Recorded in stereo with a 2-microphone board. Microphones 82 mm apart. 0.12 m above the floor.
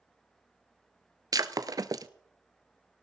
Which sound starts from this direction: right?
Breaking glass, at 1.3 s.